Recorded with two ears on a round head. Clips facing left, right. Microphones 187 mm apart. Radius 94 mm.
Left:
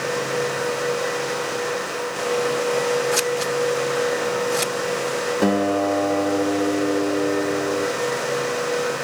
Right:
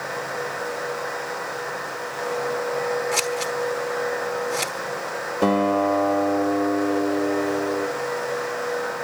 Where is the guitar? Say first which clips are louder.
Right 1 dB; 10° left (ahead or behind), 0.7 m.